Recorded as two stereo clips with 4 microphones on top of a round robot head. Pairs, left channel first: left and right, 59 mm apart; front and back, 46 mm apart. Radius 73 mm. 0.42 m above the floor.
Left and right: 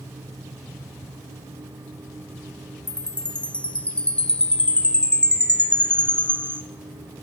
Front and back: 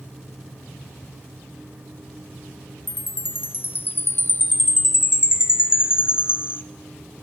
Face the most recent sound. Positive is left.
turn(degrees=25)